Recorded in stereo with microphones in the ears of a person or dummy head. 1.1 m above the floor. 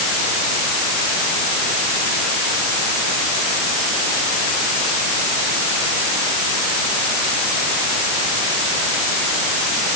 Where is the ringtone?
No ringtone in this recording.